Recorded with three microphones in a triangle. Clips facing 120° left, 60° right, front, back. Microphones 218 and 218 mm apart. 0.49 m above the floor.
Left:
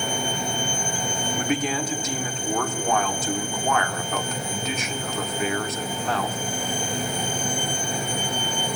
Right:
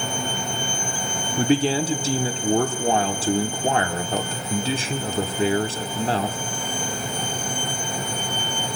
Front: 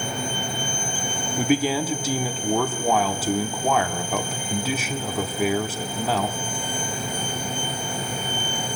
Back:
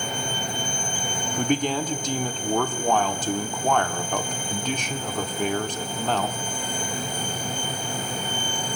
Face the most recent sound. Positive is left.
turn(degrees=-75)